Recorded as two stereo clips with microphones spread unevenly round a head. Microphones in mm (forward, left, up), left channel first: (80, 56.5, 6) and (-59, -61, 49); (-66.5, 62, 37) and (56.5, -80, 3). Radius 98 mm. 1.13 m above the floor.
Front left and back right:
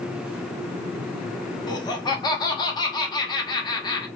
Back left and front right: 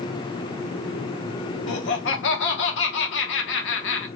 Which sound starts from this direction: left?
Laughter, at 1.7 s.